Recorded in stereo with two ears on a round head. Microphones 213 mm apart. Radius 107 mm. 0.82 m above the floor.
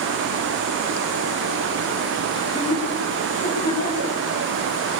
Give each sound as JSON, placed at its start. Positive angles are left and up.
{"t": 2.3, "sound": "laughter", "side_deg": 30, "distance_m": 9.5}